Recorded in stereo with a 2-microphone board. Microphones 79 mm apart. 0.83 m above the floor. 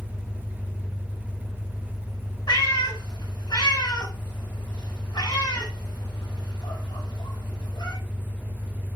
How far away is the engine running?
About 1.1 m.